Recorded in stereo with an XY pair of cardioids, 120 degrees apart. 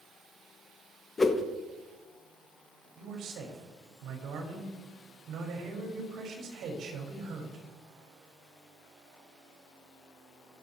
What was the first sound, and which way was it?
A whoosh, 25° left.